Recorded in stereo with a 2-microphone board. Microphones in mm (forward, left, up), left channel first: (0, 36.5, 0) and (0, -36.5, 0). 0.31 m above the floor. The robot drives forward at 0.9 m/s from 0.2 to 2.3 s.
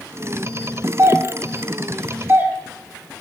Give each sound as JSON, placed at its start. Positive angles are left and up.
{"t": 1.0, "sound": "a doorbell", "side_deg": -35, "distance_m": 1.7}